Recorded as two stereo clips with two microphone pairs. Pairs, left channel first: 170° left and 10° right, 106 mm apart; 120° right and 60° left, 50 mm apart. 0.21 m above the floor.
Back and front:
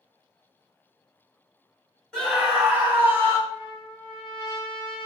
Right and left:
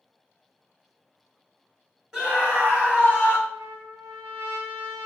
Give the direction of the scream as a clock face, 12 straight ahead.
9 o'clock.